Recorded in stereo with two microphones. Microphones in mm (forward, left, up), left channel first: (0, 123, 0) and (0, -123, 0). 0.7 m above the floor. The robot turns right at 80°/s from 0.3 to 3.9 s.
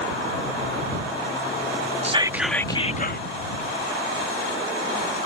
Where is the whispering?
35° right; by 3.3 s 65° left.